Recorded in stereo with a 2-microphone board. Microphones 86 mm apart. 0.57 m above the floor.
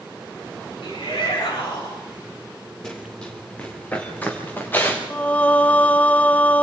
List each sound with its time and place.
0.8 s a shout: 80° left, 8 m
2.8 s running footsteps: 5° left (ahead or behind), 4.5 m; by 5.0 s 25° left (ahead or behind), 5 m
5.1 s singing: 15° left (ahead or behind), 0.6 m